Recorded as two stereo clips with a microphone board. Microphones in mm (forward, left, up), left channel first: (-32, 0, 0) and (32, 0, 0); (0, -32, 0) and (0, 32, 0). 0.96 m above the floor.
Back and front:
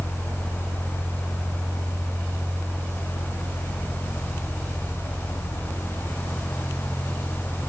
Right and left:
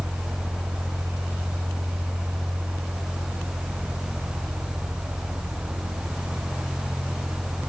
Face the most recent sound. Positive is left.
No sound to turn to.